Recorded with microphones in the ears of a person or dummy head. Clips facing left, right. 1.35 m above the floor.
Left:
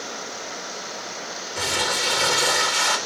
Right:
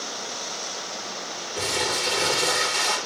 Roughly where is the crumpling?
Left.